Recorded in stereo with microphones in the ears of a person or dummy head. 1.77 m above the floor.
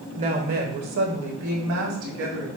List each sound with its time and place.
0.2 s a woman speaking: 30° right (ahead or behind), 0.8 m; by 2.5 s 75° right (ahead or behind), 1.9 m